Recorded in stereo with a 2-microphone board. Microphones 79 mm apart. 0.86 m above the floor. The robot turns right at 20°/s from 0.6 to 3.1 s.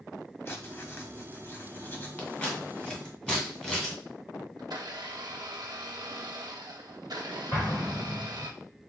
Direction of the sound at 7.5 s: 40° left (ahead or behind).